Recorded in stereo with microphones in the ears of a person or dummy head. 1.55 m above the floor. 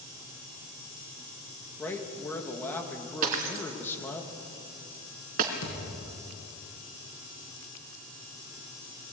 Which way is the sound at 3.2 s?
45° right (ahead or behind).